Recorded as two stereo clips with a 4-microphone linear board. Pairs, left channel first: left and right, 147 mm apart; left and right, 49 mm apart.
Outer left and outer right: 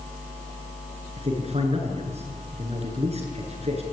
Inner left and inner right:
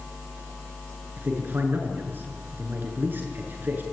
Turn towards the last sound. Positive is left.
turn(degrees=-45)  # may be behind; listen again after turning